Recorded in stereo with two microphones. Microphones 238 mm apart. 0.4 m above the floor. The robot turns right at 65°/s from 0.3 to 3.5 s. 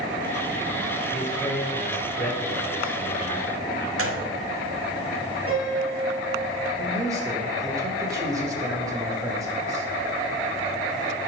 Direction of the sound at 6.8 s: 15° right (ahead or behind).